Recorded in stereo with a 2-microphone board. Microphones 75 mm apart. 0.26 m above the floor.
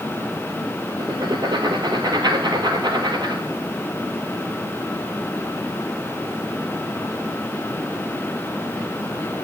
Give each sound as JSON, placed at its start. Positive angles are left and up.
{"t": 1.0, "sound": "writing", "side_deg": -75, "distance_m": 1.2}